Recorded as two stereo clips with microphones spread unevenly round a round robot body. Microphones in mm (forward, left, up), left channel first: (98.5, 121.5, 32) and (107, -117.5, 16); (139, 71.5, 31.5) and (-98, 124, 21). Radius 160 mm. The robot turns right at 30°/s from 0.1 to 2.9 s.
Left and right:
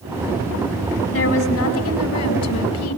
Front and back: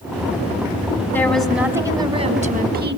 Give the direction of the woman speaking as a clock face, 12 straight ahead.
10 o'clock.